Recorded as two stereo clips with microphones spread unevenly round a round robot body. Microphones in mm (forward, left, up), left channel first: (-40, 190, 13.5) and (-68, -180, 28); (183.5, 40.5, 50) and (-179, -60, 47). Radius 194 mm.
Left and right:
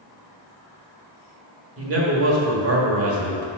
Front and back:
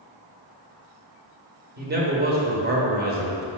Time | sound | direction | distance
1.8 | a man speaking | 115° right | 1.3 m